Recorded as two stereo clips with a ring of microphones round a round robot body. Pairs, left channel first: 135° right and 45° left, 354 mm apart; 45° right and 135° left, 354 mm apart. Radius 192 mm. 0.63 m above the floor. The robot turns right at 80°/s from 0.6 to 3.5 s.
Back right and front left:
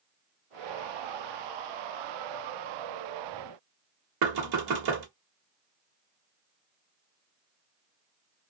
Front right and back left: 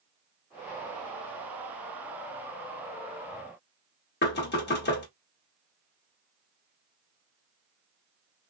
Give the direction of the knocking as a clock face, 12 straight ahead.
11 o'clock.